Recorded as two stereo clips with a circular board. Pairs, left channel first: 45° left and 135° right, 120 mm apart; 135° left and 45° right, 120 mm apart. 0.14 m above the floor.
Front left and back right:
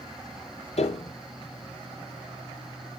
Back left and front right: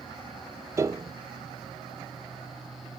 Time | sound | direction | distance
0.8 | a piano | 20° left | 0.5 m